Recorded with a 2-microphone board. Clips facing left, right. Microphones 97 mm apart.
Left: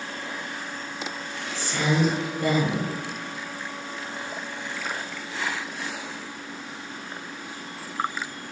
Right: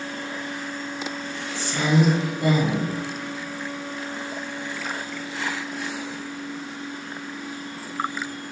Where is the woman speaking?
20° right (ahead or behind), 1.5 m.